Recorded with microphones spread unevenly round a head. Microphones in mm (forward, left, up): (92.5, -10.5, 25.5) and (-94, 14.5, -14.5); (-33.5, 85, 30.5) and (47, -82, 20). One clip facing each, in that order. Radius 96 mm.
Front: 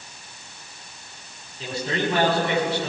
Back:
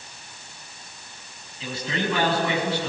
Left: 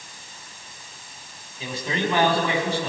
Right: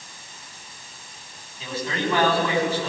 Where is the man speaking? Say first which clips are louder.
Front 2 dB, even; 40° left, 7 m.